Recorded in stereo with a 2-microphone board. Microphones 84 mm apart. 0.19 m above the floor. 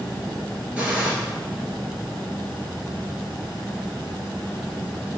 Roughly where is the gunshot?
Centre.